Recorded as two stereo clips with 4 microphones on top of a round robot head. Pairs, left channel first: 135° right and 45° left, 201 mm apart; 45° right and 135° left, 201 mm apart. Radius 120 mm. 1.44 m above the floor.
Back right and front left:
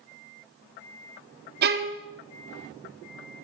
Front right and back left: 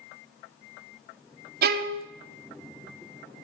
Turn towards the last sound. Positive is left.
turn(degrees=90)